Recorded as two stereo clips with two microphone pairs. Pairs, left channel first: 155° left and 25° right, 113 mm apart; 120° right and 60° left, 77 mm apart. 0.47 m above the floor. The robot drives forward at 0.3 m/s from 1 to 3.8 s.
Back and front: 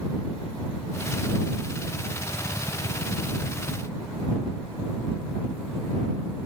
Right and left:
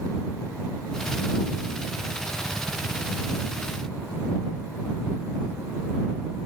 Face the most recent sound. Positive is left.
No sound to turn to.